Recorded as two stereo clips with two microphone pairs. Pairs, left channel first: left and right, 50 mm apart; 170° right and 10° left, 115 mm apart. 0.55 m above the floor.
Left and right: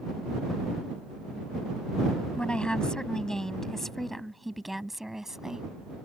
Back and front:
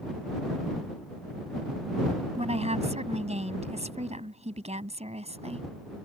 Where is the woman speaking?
25° left; by 5.7 s 10° right.